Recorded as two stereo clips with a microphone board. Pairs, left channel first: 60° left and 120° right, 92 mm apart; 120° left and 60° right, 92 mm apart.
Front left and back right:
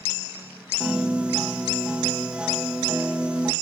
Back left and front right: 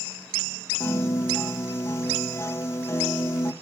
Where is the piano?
165° left, 1.0 m.